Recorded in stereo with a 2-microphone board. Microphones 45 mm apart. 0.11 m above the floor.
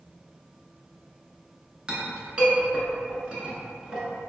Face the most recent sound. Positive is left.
turn(degrees=-20)  # may be behind; listen again after turning